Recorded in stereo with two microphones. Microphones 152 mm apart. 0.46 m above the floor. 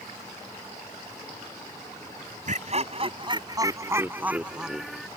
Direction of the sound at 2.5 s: 55° right (ahead or behind).